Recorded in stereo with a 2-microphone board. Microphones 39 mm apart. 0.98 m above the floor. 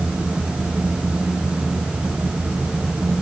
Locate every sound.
Only background noise.